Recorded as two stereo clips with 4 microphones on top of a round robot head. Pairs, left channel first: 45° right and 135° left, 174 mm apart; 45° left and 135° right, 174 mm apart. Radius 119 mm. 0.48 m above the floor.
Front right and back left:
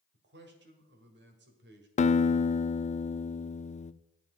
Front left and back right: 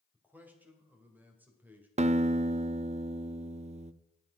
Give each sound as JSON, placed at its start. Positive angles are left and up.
{"t": 0.1, "sound": "a man speaking", "azimuth_deg": 145, "distance_m": 2.0}
{"t": 2.0, "sound": "a guitar", "azimuth_deg": -90, "distance_m": 0.5}